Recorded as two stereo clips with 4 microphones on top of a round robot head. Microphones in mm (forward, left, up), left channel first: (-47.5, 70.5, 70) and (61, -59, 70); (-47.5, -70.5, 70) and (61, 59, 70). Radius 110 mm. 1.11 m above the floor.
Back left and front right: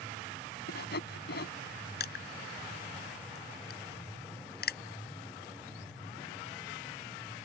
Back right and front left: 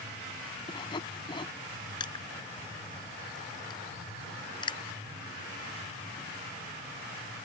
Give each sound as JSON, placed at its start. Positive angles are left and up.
{"t": 0.7, "sound": "sawing", "azimuth_deg": 165}
{"t": 2.0, "sound": "crushing", "azimuth_deg": 165}